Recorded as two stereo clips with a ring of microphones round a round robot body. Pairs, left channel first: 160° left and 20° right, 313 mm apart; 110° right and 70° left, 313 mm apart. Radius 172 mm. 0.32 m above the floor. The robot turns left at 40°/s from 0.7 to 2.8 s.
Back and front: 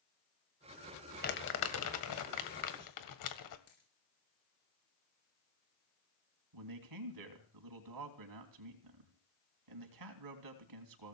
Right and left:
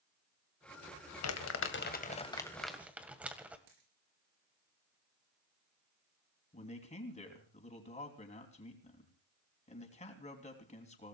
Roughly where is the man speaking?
Ahead right.